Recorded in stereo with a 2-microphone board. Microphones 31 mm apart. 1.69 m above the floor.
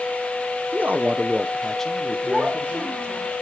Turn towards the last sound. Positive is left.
turn(degrees=-50)  # may be behind; listen again after turning